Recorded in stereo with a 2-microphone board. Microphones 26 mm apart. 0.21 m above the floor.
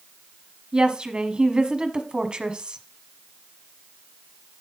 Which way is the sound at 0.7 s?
40° right (ahead or behind).